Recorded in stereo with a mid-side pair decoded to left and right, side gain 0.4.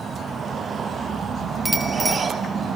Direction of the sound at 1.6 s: 10° right.